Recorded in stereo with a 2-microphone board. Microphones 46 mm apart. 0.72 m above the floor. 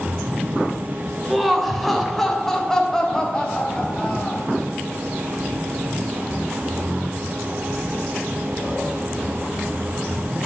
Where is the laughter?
5° right (ahead or behind), 3 m; by 4.5 s 20° left (ahead or behind), 5 m.